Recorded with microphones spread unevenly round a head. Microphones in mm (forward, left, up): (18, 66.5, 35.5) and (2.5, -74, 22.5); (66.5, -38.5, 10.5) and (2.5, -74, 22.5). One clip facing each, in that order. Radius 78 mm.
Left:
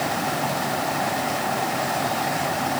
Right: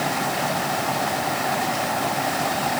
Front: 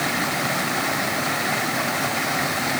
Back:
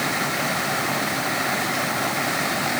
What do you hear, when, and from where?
Only background noise.